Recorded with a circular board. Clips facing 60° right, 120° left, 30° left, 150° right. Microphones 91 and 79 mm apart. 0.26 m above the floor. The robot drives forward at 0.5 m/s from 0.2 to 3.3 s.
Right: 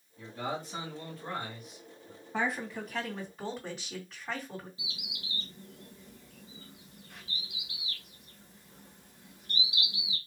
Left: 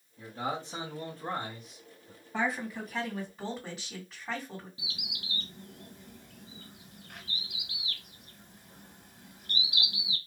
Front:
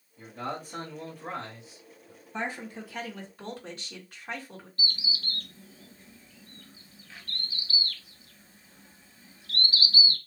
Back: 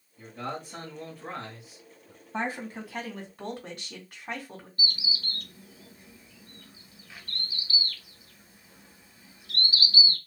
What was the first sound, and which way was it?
A man speaking, 85° left.